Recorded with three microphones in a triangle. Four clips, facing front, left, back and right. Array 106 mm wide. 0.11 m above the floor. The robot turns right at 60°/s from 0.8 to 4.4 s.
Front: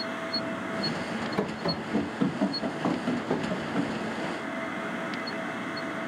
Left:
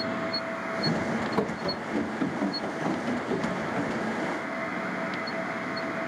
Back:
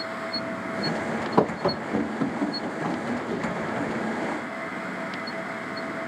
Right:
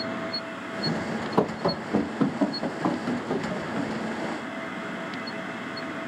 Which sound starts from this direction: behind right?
Running footsteps, at 1.4 s.